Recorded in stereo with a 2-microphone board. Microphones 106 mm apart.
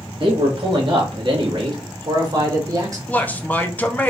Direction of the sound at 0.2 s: 55° right (ahead or behind).